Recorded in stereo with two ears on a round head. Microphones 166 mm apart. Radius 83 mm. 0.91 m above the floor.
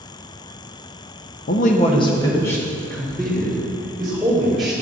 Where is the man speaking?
50° left (ahead or behind), 0.7 m; by 4.7 s centre (ahead or behind), 4 m.